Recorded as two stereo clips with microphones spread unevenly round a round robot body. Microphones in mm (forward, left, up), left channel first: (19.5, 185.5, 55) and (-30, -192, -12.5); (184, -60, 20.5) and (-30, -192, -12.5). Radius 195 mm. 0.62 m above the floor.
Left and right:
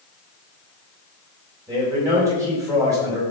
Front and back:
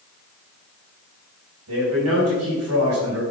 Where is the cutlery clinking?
I don't hear cutlery clinking.